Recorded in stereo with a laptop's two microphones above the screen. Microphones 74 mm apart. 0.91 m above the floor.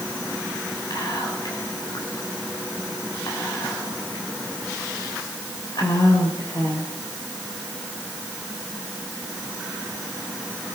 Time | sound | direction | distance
0.9 | whispering | 60° left (ahead or behind) | 4 m